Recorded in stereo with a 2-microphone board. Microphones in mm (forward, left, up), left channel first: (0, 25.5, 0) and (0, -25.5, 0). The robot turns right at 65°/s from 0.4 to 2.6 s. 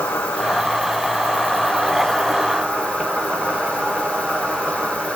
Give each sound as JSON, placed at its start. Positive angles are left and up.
{"t": 0.0, "sound": "an insect", "azimuth_deg": 65, "distance_m": 1.7}